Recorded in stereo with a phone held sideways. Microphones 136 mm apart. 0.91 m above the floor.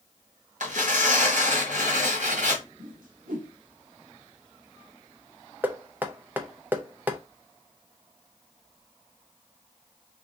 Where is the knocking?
15° right (ahead or behind), 0.6 m.